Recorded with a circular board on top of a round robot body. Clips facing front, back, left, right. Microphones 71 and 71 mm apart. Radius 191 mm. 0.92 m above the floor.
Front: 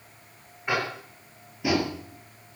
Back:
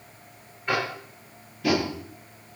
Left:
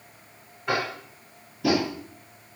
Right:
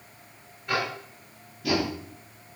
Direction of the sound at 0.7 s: 80° left.